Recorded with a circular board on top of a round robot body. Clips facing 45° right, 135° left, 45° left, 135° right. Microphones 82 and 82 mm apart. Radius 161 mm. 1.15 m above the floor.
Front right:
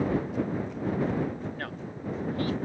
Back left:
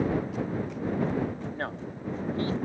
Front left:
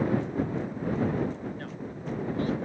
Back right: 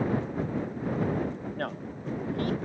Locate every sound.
1.5 s a man speaking: 165° right